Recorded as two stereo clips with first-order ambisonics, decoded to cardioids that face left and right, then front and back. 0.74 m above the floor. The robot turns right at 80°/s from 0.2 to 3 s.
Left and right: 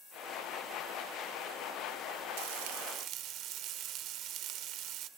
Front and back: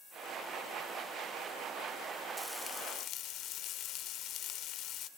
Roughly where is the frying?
Right.